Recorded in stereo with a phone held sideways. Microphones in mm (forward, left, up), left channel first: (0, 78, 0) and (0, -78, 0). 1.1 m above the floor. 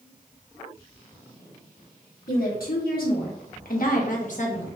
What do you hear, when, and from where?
2.3 s a woman speaking: 65° left (ahead or behind), 1.6 m; by 4.7 s 50° left (ahead or behind), 1.2 m